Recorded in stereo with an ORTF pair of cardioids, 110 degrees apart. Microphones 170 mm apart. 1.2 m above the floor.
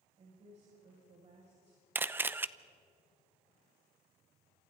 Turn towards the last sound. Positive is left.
turn(degrees=-10)